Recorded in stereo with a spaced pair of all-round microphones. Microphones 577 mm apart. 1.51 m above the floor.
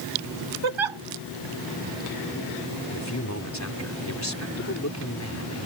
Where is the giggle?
55° right (ahead or behind).